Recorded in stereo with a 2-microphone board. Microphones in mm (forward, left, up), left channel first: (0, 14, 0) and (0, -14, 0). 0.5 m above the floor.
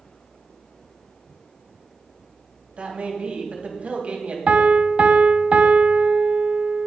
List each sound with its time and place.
2.8 s a man speaking: 55° right (ahead or behind), 3.5 m
4.5 s a piano: 50° right (ahead or behind), 0.8 m